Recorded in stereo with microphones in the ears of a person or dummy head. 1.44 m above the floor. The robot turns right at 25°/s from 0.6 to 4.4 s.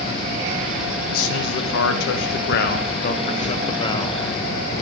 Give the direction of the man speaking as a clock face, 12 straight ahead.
9 o'clock.